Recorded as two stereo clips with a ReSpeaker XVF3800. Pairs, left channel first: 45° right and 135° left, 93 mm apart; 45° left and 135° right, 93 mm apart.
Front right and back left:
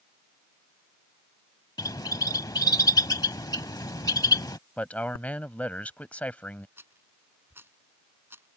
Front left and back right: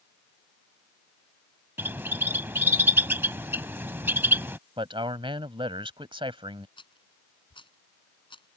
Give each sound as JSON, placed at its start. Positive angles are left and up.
{"t": 1.8, "sound": "a bird", "azimuth_deg": -75}
{"t": 4.8, "sound": "a man speaking", "azimuth_deg": -120}
{"t": 6.8, "sound": "a rattle", "azimuth_deg": 70}